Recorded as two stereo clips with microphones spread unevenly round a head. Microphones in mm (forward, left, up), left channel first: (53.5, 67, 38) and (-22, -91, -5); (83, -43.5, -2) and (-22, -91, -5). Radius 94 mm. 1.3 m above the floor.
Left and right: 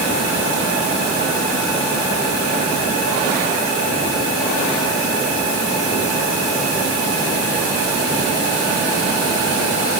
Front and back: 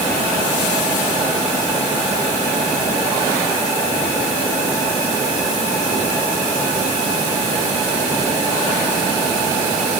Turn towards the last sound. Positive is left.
No sound to turn to.